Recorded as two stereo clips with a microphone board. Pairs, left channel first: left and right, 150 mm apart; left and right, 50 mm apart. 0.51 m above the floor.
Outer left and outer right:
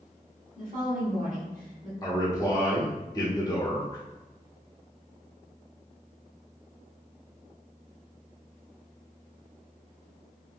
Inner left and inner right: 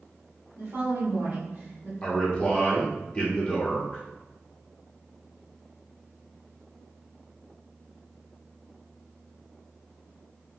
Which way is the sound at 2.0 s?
25° left (ahead or behind).